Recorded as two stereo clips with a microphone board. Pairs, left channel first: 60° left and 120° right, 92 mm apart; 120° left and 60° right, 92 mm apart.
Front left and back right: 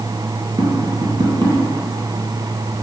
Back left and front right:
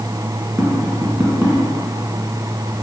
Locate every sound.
0.6 s tapping: 130° right, 1.9 m